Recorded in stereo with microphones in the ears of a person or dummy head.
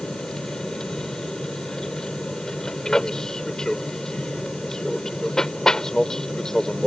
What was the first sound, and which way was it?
An aircraft, centre (ahead or behind).